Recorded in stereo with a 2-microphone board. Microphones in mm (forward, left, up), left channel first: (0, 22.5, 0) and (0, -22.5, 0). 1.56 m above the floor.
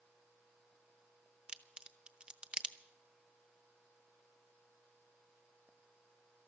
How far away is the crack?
About 0.8 m.